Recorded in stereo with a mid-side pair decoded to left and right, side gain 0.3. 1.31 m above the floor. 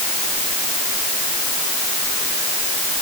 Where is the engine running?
I don't hear an engine running.